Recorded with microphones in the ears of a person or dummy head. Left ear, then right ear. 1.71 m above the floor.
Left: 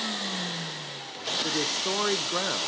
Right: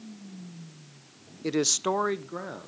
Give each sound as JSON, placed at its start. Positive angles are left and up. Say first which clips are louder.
{"t": 1.4, "sound": "a man speaking", "louder": "right 5 dB", "side_deg": -70, "distance_m": 0.9}